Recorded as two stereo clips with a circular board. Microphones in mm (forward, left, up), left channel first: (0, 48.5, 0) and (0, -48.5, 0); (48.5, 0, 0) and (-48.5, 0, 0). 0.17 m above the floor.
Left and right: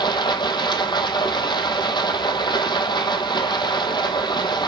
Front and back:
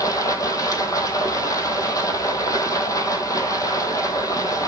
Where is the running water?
55° left, 1.5 m.